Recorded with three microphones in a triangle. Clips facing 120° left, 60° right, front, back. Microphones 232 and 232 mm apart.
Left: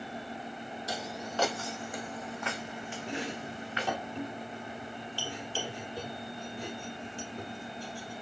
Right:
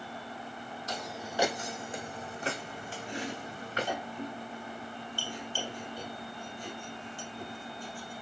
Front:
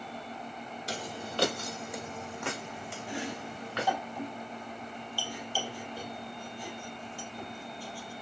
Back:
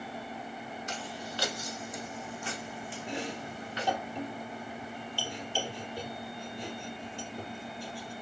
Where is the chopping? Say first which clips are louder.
Left 1 dB, even; 115° left, 3 m.